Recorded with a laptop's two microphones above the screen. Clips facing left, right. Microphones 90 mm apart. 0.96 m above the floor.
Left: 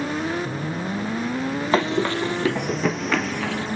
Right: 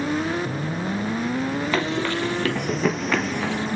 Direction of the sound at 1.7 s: 30° left (ahead or behind).